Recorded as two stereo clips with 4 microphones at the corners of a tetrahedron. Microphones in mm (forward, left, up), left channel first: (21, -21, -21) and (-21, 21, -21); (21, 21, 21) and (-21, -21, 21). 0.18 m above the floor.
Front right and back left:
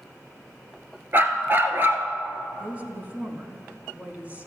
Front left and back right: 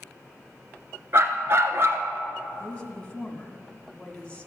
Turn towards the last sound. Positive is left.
turn(degrees=100)